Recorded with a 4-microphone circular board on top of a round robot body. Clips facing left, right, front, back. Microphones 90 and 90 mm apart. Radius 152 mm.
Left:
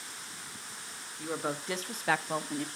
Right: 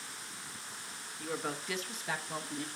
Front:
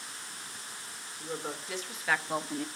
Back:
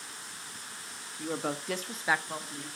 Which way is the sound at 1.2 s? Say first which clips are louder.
Left 3 dB, back 5 dB; 165° left.